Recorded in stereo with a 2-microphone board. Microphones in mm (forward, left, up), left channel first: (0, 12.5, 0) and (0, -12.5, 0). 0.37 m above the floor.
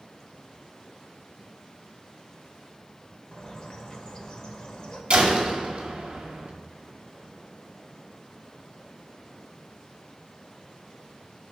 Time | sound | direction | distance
3.3 | a bird | 35° left (ahead or behind) | 1.3 m
5.1 | a door slam | 40° right (ahead or behind) | 1.9 m